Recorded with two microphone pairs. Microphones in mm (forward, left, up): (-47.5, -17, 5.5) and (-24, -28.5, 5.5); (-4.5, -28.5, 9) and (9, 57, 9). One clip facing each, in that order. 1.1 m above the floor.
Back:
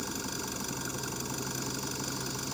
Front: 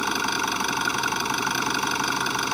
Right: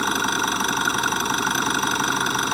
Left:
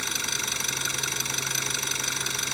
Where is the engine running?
65° right.